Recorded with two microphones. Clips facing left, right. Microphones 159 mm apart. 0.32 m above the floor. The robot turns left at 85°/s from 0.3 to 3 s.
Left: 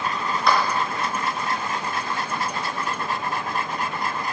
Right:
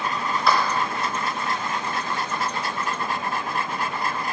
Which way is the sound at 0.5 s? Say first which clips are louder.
Left 1 dB; 5° right (ahead or behind).